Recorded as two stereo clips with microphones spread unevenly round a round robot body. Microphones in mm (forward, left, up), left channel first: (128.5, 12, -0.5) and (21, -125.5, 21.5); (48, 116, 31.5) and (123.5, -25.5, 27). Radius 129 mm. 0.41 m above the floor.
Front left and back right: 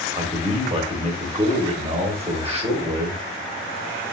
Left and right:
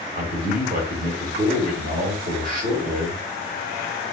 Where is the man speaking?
75° right, 1.5 m.